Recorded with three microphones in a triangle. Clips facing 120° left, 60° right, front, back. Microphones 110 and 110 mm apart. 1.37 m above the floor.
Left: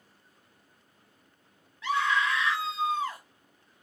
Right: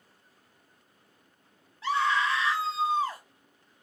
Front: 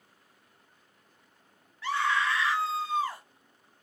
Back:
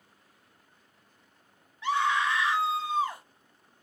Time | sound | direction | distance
1.8 | a scream | 110° right | 0.9 m